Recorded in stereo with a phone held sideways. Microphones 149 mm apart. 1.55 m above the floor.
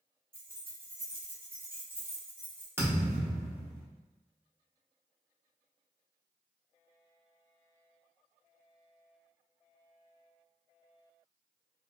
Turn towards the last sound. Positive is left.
turn(degrees=-15)  # may be behind; listen again after turning